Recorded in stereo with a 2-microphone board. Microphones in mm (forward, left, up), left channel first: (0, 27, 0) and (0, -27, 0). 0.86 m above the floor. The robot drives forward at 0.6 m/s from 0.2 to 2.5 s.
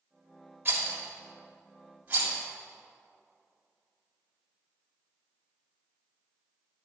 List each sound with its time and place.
0.7 s a rattle: 45° right (ahead or behind), 1.6 m; by 2.4 s 25° right (ahead or behind), 2.5 m